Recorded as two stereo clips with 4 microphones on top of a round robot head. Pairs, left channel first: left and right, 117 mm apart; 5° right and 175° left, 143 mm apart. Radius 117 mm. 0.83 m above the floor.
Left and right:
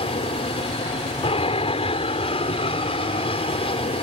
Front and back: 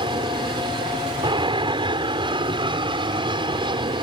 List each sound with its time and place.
0.0 s an aircraft: 120° left